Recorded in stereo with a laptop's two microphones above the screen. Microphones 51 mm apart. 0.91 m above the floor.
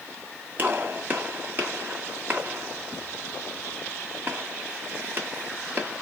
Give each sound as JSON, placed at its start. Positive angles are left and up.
{"t": 0.6, "sound": "a gunshot", "side_deg": -40, "distance_m": 1.5}